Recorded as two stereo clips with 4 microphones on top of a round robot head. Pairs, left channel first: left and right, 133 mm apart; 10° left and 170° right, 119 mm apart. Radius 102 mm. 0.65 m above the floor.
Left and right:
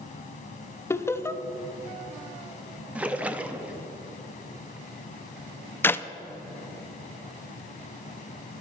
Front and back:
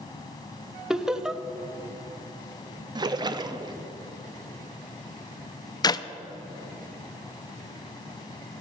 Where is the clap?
30° left, 0.6 m.